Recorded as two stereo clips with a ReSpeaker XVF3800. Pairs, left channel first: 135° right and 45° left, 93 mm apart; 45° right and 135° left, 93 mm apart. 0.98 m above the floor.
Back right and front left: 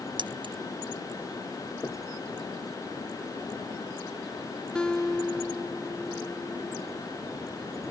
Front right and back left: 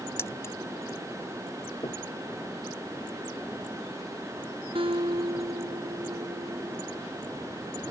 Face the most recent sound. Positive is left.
turn(degrees=145)